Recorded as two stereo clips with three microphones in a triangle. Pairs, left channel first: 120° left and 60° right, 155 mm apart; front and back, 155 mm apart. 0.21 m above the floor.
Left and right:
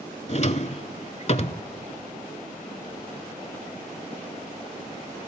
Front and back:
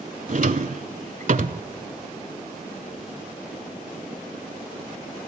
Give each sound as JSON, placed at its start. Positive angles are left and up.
{"t": 0.3, "sound": "a drawer", "azimuth_deg": 155, "distance_m": 0.6}